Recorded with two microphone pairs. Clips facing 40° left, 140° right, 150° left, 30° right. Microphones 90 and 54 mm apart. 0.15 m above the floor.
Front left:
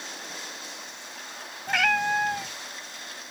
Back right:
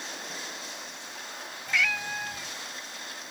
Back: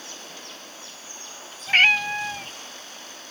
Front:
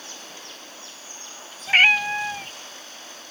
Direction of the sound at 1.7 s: 50° left.